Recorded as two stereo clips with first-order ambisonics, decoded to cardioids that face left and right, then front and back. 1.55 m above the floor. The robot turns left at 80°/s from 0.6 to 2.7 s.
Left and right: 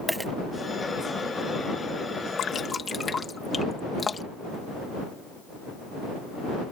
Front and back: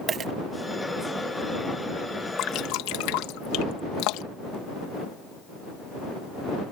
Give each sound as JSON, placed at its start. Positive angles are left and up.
{"t": 0.1, "sound": "a dropped coin", "azimuth_deg": -170}
{"t": 2.4, "sound": "dripping", "azimuth_deg": 40}